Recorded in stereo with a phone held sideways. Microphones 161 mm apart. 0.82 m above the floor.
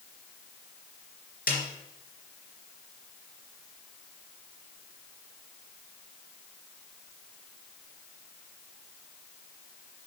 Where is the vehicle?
No vehicle in this recording.